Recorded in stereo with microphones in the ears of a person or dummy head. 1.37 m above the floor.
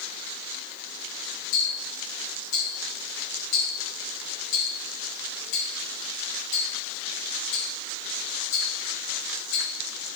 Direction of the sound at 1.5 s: 70° left (ahead or behind).